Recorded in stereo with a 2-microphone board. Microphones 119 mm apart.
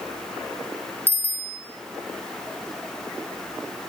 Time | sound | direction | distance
1.1 | a bicycle bell | 15° left (ahead or behind) | 4.5 m